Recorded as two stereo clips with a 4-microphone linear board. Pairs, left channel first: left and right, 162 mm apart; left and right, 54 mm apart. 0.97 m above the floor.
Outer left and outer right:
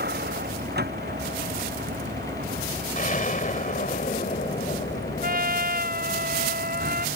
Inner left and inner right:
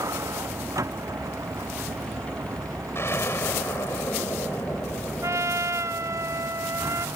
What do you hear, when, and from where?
0.0 s a vehicle: 85° right
3.0 s an explosion: 55° left (ahead or behind)
5.2 s a trumpet: 70° right (ahead or behind)